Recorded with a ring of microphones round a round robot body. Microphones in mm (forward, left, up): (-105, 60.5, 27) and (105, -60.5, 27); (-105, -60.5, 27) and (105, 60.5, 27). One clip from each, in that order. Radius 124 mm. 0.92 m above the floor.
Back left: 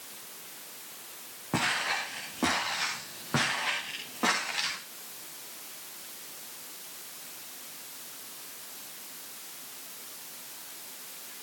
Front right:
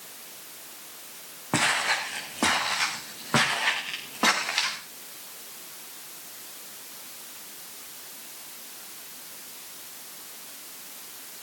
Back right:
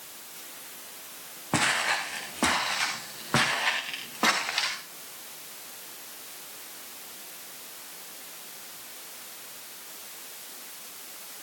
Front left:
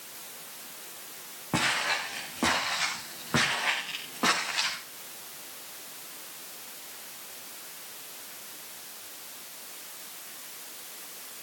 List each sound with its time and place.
1.5 s footsteps: 85° right, 3.5 m